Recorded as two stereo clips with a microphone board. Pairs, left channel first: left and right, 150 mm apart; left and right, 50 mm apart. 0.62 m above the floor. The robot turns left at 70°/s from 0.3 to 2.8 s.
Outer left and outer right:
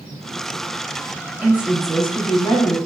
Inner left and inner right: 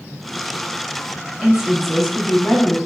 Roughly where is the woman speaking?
Centre.